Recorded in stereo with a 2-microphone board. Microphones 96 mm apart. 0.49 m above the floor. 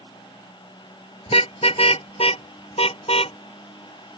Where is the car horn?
85° left; by 3.4 s 80° left.